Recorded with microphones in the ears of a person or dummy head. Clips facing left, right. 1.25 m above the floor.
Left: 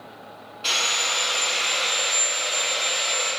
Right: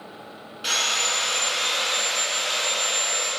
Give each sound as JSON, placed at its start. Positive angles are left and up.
{"t": 0.6, "sound": "sawing", "side_deg": -10, "distance_m": 4.5}